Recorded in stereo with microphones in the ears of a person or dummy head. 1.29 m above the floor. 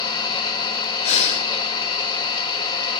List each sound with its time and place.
0.0 s an engine running: 25° left (ahead or behind), 4.5 m
1.0 s breathing: 35° left (ahead or behind), 1.9 m